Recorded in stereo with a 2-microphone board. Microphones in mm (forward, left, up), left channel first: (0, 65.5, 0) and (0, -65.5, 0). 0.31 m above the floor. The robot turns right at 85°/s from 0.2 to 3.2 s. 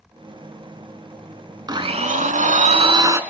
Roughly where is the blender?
Behind right.